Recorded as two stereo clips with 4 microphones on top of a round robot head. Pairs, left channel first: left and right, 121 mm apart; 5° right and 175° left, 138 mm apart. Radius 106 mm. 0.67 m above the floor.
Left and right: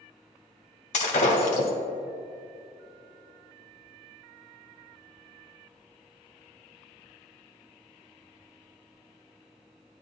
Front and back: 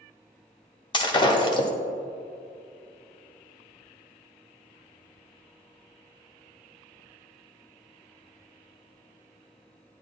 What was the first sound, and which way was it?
Breaking glass, 50° left.